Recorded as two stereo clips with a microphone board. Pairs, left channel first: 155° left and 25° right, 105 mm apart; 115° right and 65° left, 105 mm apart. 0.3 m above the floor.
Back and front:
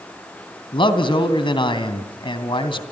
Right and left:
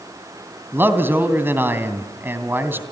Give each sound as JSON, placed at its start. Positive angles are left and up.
{"t": 0.7, "sound": "a man speaking", "azimuth_deg": 135, "distance_m": 2.5}